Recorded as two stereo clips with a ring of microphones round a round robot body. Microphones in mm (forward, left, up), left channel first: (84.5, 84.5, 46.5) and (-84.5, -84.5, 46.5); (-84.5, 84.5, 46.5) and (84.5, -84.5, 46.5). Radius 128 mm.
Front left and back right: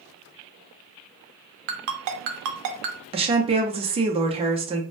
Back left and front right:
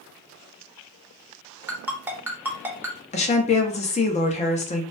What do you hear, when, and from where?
1.7 s a ringtone: 125° right, 0.6 m
3.1 s a woman speaking: 175° left, 0.6 m